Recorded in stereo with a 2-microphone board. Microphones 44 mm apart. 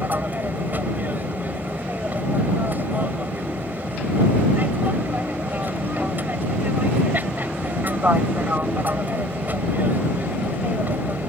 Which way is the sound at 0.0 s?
40° right (ahead or behind).